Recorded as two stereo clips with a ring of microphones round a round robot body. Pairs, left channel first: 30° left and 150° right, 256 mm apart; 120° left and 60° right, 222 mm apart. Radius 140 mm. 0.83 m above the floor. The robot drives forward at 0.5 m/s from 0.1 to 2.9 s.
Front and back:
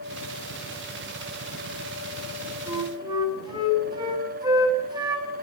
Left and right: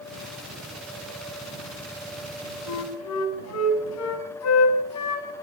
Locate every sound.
2.7 s a flute: 135° left, 7 m